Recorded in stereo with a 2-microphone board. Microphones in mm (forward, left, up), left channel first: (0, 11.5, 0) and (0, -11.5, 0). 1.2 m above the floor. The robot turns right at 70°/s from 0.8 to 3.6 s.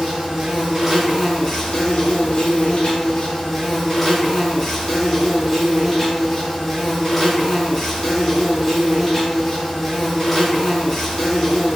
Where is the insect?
25° right, 1.1 m; by 11.8 s 170° left, 1.1 m.